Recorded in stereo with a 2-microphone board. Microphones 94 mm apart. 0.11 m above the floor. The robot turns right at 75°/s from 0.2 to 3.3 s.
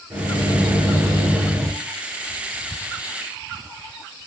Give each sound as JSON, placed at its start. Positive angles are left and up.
{"t": 0.1, "sound": "a microwave", "azimuth_deg": -120, "distance_m": 1.6}